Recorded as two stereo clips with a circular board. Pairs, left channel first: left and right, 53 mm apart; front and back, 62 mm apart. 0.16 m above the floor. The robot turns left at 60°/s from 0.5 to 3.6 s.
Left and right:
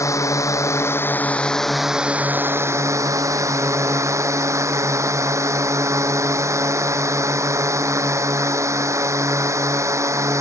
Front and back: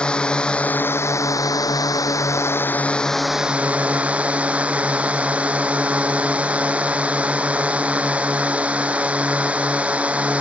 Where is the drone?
75° left; by 10.4 s 110° right.